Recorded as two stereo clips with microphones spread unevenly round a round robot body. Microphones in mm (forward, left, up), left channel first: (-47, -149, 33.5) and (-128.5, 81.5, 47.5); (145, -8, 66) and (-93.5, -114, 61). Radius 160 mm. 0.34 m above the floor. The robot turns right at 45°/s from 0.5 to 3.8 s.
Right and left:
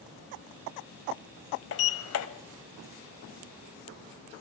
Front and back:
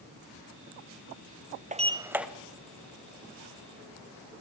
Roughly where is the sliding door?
Right.